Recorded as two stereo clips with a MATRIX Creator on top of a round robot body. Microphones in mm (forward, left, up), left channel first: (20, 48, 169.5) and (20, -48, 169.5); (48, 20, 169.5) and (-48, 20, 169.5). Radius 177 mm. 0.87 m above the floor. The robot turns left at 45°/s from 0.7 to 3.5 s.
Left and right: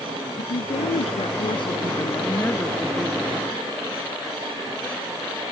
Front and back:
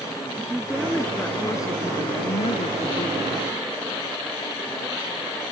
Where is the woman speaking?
95° left; by 3.4 s 30° right.